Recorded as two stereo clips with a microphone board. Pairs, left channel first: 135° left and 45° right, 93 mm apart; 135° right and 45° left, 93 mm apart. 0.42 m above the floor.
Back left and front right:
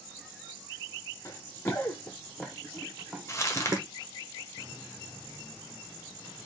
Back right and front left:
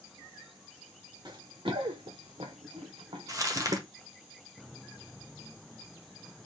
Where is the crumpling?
85° left, 1.4 m.